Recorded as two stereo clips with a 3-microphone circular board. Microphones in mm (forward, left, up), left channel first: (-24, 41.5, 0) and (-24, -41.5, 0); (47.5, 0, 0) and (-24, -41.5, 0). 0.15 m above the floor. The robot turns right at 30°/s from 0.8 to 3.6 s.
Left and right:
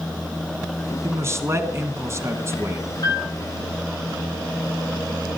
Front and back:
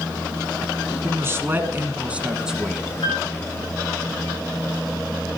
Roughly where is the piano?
Ahead left.